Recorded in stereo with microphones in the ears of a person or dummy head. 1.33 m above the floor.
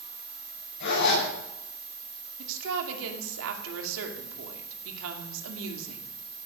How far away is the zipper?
About 8.5 m.